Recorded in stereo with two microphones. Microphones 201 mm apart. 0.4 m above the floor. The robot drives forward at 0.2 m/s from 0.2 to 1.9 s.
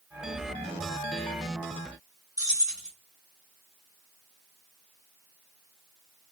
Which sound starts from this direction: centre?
Keys jangling, at 2.4 s.